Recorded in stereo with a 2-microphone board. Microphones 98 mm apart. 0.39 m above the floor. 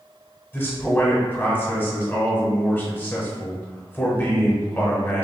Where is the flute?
I don't hear a flute.